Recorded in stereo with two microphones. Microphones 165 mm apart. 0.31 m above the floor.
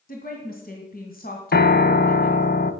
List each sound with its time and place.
0.1 s a woman speaking: 65° left (ahead or behind), 2 m
1.5 s a piano: 75° left (ahead or behind), 0.8 m